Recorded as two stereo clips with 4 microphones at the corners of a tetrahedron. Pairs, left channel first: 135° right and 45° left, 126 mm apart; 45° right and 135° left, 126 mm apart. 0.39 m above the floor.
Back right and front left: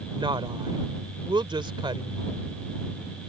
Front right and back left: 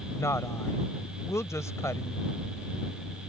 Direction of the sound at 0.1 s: 15° left.